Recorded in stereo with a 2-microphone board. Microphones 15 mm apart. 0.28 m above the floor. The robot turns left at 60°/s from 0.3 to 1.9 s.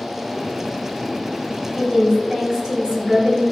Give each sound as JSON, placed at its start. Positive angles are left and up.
{"t": 1.8, "sound": "a woman speaking", "side_deg": -40, "distance_m": 5.5}